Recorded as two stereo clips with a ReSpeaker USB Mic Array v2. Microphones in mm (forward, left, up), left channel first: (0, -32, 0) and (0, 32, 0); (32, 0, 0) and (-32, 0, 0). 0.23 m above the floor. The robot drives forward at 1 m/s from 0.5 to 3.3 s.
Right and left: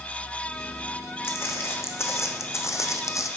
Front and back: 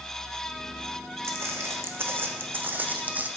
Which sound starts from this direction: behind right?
Footsteps, at 1.2 s.